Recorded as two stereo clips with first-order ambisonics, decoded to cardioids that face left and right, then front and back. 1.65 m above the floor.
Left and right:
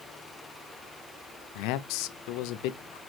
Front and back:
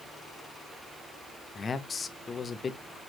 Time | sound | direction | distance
1.6 | a man speaking | 70° left | 0.6 m